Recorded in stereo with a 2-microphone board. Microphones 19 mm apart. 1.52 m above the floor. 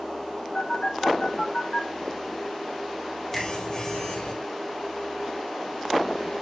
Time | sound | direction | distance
0.6 | a phone buzzing | 35° left (ahead or behind) | 5 m
3.3 | a finger snap | 5° left (ahead or behind) | 5 m